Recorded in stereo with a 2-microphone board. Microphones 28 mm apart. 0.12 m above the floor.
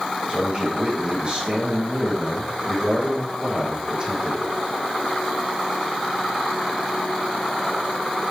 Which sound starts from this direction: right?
A man speaking, at 0.3 s.